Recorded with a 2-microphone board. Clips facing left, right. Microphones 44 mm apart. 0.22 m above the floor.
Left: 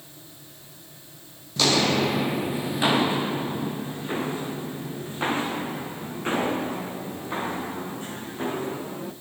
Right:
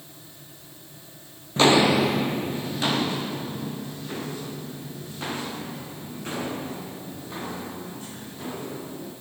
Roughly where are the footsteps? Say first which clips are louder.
Right 4 dB; right.